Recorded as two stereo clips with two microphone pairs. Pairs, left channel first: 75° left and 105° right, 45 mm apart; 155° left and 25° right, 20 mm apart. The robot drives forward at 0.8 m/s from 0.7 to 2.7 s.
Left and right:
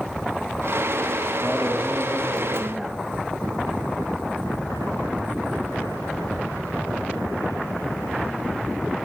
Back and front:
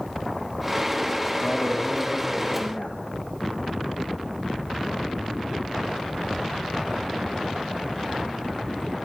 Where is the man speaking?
170° left, 6 m.